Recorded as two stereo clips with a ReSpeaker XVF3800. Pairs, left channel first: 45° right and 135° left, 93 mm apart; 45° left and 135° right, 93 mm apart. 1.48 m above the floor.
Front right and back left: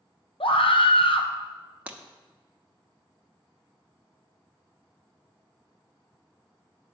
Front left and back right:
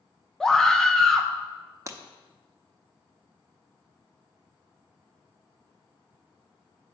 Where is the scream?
40° right, 1.0 m.